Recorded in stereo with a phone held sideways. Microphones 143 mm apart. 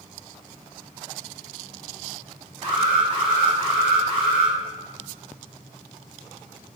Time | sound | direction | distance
2.6 | an alarm | 45° right (ahead or behind) | 2.5 m